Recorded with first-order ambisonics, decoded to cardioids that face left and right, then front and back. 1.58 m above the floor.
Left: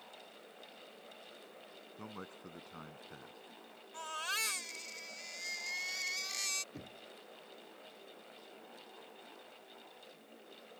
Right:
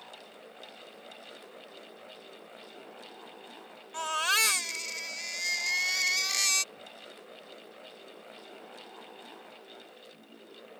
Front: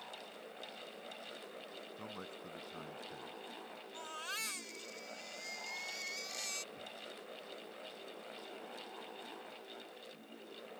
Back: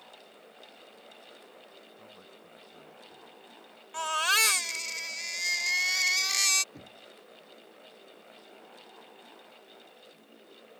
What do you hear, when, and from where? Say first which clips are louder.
2.0 s a man speaking: right 1 dB, front 4 dB; 60° left
3.9 s a baby crying: right 11 dB, back 18 dB; 145° right
6.7 s knocking: right 4 dB, front 1 dB; 130° left